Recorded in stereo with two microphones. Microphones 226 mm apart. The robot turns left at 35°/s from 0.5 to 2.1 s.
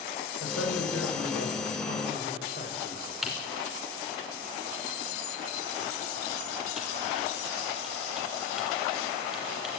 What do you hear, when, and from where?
0.4 s a man speaking: 100° left, 7 m; by 3.1 s 45° left, 7 m
3.2 s typing on a keyboard: centre (ahead or behind), 5 m